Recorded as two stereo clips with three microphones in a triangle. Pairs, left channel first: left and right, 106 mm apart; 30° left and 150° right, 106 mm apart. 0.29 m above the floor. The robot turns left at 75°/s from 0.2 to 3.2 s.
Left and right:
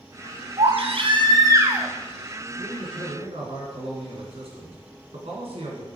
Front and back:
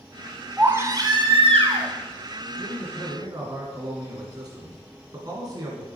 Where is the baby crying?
70° right, 2 m; by 1.9 s 170° right, 2 m.